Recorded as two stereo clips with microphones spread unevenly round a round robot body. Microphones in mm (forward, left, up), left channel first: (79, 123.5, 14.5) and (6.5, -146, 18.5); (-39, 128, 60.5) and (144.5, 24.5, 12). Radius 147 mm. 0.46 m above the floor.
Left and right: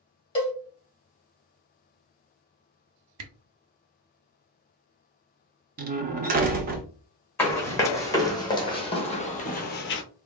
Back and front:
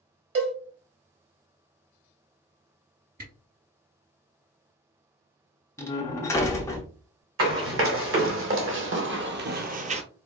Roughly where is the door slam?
Behind right.